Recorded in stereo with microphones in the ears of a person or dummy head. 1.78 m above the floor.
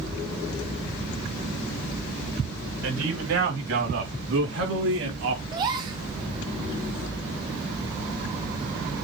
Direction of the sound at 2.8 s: 80° right.